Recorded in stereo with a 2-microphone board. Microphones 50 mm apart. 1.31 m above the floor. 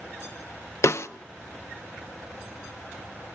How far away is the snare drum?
About 0.6 m.